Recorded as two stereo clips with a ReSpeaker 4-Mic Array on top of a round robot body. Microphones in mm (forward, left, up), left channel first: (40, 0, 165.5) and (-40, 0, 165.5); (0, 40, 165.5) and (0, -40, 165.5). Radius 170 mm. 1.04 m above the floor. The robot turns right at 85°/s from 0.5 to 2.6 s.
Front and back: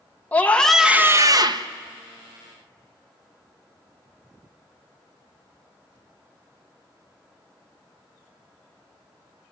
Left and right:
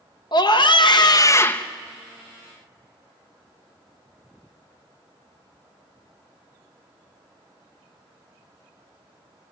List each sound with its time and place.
0.3 s a scream: 70° left, 1.2 m; by 1.7 s 170° left, 1.2 m